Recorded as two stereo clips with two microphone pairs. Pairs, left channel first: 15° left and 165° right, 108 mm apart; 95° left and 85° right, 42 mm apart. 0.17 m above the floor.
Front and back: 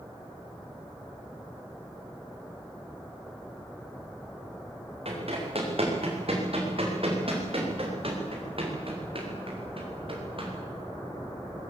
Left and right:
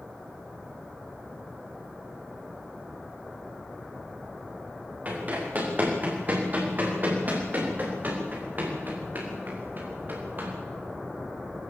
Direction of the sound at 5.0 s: 135° right.